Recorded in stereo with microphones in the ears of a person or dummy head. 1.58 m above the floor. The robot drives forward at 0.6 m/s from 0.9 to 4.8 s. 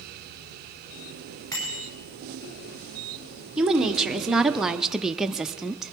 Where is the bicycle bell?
15° left (ahead or behind), 5.5 m.